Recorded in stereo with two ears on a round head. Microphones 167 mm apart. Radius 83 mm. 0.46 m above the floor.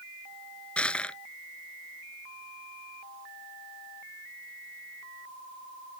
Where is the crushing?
5° left (ahead or behind).